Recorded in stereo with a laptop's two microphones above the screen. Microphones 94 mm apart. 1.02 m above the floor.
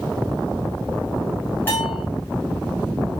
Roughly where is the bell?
Left.